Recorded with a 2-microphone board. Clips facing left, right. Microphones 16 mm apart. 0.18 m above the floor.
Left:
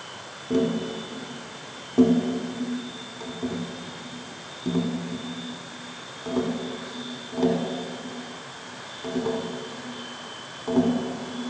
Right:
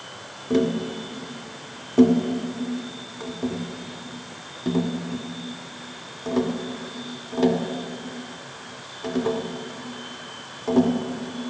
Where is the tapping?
10° right (ahead or behind), 1.4 m.